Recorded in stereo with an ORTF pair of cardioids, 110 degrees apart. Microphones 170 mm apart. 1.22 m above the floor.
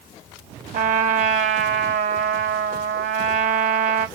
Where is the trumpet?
45° right, 0.9 m.